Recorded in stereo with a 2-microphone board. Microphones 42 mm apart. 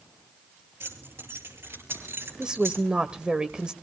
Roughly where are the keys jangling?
Right.